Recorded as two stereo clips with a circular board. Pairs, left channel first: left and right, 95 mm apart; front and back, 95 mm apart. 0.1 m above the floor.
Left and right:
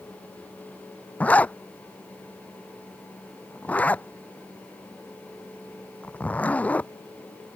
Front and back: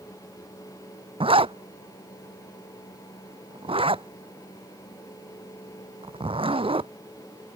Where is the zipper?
165° left.